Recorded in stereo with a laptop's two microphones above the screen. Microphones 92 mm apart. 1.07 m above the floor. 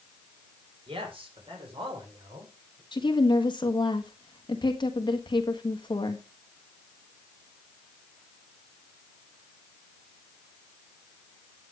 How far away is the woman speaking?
About 1.5 m.